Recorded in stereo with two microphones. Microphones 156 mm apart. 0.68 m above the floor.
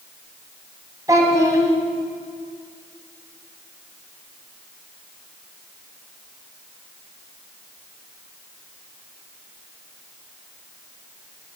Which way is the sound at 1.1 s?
20° right (ahead or behind).